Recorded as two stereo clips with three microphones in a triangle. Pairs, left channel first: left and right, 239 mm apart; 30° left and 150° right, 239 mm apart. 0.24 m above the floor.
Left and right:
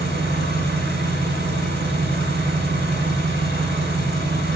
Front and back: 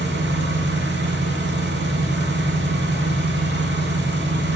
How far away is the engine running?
About 2 m.